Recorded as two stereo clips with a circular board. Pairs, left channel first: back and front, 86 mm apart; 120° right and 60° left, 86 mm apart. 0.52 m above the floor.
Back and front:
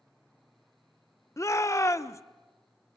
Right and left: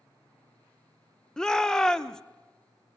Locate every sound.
1.4 s a shout: 165° left, 0.9 m